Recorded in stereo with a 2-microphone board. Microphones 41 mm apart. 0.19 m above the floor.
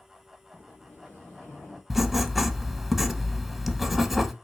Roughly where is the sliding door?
Left.